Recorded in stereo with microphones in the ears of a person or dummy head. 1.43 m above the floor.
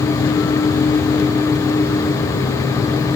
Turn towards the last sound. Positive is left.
No sound to turn to.